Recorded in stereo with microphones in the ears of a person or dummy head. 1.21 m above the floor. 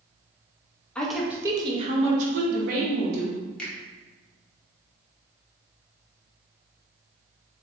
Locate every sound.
0.9 s a woman speaking: 5° left (ahead or behind), 0.7 m; by 3.4 s 60° right (ahead or behind), 1.5 m
3.6 s a finger snap: 5° left (ahead or behind), 1.0 m